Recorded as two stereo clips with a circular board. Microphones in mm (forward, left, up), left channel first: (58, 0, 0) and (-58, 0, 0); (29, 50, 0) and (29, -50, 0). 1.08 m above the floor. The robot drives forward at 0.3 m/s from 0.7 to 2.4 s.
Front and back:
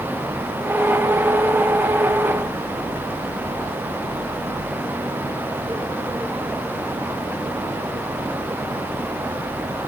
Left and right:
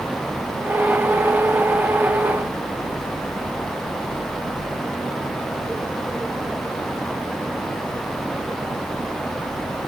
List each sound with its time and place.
Only background noise.